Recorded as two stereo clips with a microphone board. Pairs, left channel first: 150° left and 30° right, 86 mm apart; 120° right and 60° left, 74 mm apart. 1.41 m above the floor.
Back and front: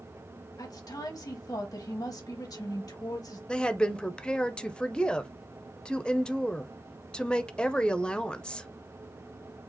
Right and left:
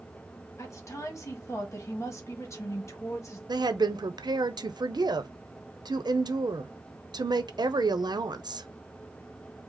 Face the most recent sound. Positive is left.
turn(degrees=70)